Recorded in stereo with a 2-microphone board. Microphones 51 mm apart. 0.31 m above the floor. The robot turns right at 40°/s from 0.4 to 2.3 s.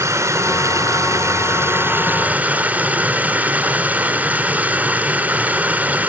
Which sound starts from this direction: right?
Running water, at 0.0 s.